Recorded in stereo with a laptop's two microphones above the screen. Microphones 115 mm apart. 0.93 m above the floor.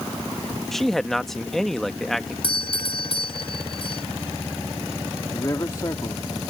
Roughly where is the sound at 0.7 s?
Centre.